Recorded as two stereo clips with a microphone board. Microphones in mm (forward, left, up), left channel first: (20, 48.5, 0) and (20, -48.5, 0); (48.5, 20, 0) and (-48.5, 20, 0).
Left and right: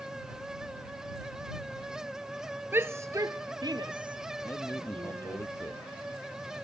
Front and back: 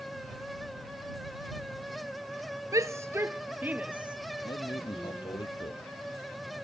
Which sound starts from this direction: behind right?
A shout, at 2.7 s.